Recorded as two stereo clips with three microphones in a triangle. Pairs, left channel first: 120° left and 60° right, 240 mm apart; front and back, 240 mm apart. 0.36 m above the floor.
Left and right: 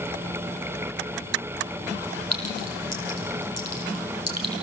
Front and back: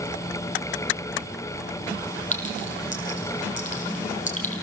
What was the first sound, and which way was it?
A clink, 60° right.